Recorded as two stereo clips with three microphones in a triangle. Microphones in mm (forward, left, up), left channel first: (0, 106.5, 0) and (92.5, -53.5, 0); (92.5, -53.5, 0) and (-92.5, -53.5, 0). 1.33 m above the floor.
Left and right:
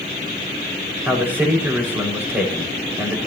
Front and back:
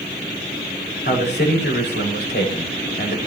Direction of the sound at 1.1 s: 20° left.